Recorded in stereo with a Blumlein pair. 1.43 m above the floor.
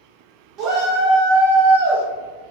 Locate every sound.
0.6 s a shout: 35° right, 1.4 m; by 2.0 s 75° right, 1.6 m